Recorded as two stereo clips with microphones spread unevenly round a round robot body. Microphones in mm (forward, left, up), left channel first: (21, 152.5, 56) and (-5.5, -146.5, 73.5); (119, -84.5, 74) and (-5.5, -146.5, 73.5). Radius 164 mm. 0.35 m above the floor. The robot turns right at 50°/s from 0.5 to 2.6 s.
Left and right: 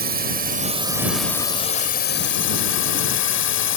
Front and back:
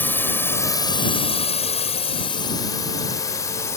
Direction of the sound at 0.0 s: 45° right.